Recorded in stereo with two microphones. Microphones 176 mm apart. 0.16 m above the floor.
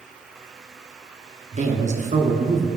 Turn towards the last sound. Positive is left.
turn(degrees=-45)  # may be behind; listen again after turning